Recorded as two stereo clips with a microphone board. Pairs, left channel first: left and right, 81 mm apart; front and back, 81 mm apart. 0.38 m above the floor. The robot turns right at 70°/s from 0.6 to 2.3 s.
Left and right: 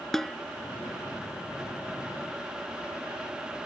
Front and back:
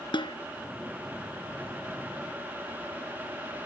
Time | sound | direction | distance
0.1 | a snare drum | 5° left | ?